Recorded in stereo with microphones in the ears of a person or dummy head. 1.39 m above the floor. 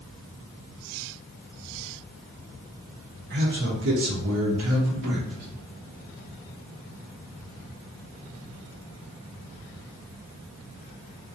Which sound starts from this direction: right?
A man speaking, at 3.3 s.